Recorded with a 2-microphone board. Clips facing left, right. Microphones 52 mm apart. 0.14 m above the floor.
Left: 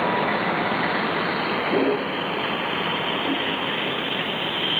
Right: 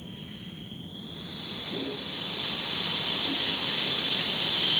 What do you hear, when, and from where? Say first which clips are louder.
0.0 s a vehicle: left 22 dB; 75° left (ahead or behind); by 4.8 s 30° left (ahead or behind)